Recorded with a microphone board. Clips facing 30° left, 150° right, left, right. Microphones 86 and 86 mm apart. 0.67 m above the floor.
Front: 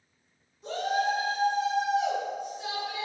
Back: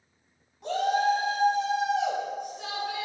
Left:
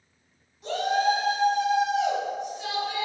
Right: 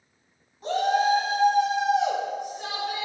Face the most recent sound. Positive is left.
turn(degrees=-130)